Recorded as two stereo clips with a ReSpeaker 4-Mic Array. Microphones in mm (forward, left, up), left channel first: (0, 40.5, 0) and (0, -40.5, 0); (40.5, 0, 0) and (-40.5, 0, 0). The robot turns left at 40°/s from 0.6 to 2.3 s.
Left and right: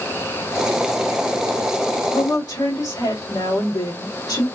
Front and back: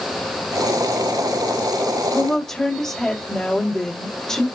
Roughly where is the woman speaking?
Left.